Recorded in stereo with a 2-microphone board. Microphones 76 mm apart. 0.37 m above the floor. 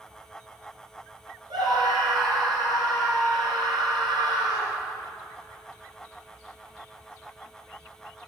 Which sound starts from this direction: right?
A scream, at 1.5 s.